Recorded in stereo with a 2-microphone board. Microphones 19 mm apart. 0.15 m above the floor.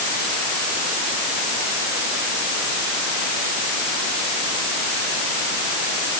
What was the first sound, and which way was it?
Only background noise.